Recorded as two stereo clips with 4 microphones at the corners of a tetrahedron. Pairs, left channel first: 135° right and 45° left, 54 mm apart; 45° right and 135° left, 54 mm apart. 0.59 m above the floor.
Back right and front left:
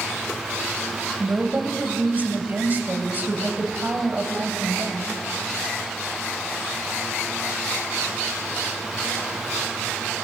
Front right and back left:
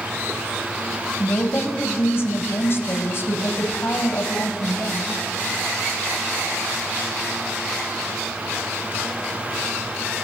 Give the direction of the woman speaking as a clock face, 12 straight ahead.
12 o'clock.